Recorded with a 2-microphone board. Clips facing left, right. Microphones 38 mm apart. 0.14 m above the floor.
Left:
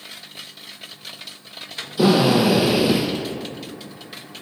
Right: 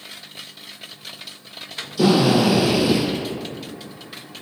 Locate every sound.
2.0 s a drill: 25° left (ahead or behind), 5 m